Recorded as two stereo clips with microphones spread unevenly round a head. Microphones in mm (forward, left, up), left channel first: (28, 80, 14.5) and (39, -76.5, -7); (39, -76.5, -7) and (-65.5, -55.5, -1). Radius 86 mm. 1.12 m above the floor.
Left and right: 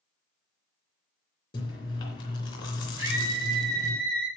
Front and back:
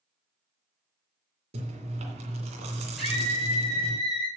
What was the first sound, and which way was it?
Chewing, 155° left.